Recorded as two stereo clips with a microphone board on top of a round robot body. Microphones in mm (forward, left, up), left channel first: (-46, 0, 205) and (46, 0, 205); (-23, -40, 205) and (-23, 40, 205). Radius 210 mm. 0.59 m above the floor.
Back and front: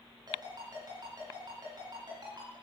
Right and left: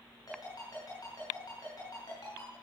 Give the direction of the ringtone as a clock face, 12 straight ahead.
1 o'clock.